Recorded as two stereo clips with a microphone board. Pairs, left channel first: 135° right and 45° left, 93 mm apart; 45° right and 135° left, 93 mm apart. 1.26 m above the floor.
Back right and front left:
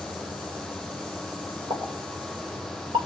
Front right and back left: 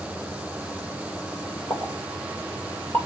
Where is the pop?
20° left, 2.5 m.